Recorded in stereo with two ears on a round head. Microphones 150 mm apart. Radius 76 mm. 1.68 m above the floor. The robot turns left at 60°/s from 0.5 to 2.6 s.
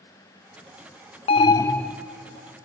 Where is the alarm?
40° left, 0.5 m; by 2.0 s 5° right, 0.5 m.